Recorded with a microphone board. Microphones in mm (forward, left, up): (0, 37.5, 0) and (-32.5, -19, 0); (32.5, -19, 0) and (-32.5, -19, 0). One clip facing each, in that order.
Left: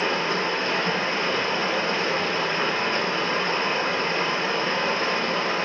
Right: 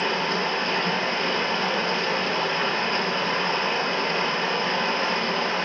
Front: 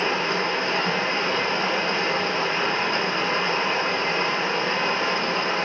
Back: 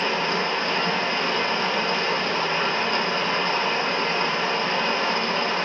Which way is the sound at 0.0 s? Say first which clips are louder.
Even, even; straight ahead.